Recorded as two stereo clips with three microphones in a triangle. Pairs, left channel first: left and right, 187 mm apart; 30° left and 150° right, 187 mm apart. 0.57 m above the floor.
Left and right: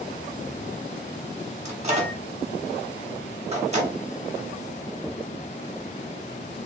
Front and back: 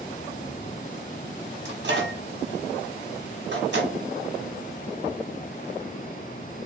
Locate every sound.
1.6 s a microwave: 145° right, 0.9 m